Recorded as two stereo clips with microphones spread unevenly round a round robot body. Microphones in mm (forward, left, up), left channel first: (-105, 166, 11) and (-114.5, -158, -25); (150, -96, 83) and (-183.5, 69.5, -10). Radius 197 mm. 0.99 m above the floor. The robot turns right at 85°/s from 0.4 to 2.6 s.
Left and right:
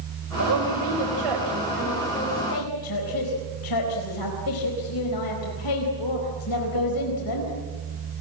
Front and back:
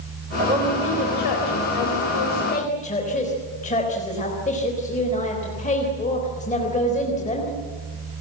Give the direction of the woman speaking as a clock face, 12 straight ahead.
5 o'clock.